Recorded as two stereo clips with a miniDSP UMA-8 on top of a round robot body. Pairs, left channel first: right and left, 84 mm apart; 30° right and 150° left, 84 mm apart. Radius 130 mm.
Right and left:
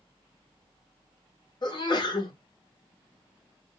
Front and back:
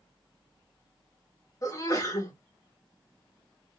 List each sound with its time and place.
1.6 s a sneeze: 70° right, 1.7 m